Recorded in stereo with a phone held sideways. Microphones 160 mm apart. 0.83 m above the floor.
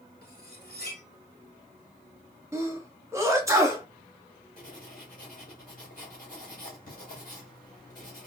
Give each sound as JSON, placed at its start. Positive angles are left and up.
{"t": 0.2, "sound": "cutlery clinking", "side_deg": 85, "distance_m": 1.1}
{"t": 2.5, "sound": "a sneeze", "side_deg": -20, "distance_m": 1.1}
{"t": 4.6, "sound": "writing", "side_deg": 60, "distance_m": 2.0}